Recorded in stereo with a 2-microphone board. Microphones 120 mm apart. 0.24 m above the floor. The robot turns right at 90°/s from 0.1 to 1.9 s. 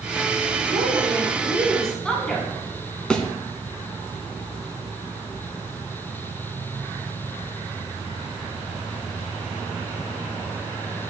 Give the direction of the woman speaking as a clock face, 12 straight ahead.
3 o'clock.